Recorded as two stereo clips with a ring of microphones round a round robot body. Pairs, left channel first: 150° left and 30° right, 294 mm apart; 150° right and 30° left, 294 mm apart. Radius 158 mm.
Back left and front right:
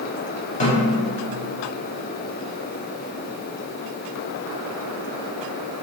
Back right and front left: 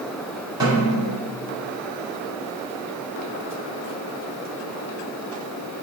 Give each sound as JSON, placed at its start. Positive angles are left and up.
{"t": 0.6, "sound": "a snare drum", "azimuth_deg": 100, "distance_m": 0.7}